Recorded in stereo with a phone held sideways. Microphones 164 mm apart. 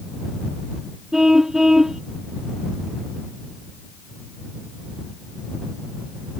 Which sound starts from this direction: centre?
A car horn, at 1.1 s.